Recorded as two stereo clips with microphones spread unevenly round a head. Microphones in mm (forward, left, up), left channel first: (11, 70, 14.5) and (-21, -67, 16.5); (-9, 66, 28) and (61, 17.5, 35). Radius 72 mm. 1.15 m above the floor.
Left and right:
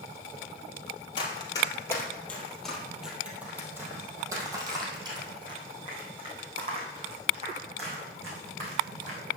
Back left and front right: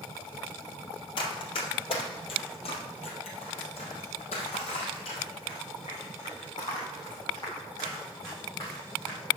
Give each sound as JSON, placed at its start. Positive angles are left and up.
{"t": 1.2, "sound": "running footsteps", "azimuth_deg": 130, "distance_m": 1.9}